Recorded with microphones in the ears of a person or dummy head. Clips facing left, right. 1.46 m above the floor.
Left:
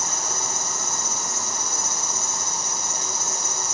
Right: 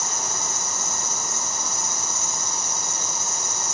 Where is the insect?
20° right (ahead or behind), 2 m.